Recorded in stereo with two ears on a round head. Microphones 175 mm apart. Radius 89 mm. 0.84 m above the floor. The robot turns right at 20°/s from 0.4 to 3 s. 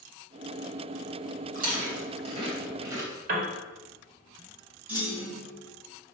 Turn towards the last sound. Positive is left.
turn(degrees=-10)  # may be behind; listen again after turning